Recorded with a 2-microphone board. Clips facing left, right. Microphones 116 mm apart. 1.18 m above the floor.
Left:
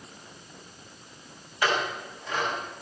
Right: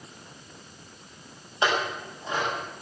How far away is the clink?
About 5 m.